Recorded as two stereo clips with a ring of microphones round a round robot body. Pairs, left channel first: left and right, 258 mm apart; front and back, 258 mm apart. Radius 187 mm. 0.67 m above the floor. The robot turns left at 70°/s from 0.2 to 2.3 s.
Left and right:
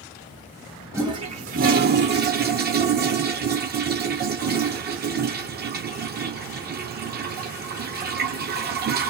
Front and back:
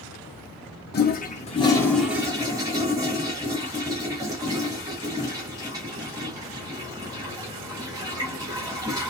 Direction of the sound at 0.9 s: 15° right.